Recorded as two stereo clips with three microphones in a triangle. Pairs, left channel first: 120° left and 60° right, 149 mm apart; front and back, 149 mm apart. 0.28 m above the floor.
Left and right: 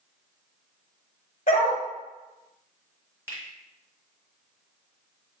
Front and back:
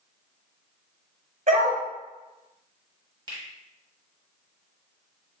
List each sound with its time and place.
1.5 s a dog barking: 155° left, 1.4 m
3.3 s a finger snap: 130° right, 1.3 m